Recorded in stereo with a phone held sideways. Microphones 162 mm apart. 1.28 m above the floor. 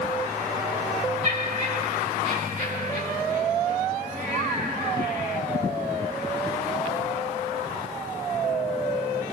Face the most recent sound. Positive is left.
turn(degrees=-45)  # may be behind; listen again after turning